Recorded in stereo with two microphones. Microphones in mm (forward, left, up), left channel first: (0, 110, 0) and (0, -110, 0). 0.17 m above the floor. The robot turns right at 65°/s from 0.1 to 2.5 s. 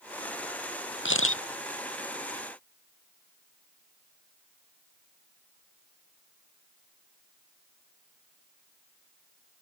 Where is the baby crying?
I don't hear a baby crying.